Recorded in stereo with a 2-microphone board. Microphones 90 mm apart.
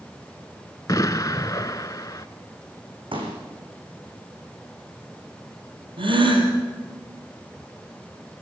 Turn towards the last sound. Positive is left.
turn(degrees=-65)  # may be behind; listen again after turning